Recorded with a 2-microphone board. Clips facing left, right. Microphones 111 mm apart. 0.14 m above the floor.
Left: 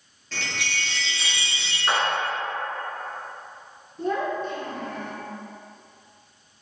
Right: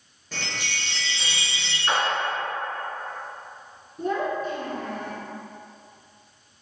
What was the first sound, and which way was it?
A chime, 15° right (ahead or behind).